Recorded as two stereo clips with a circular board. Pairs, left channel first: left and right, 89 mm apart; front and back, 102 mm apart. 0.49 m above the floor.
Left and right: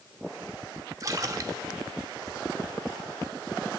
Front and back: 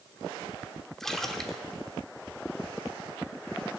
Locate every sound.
1.0 s a splash: 85° right, 0.9 m